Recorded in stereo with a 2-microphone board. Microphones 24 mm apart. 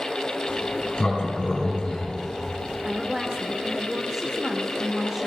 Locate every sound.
0.5 s a sliding door: 35° left (ahead or behind), 4.5 m
2.9 s a woman speaking: 20° right (ahead or behind), 1.2 m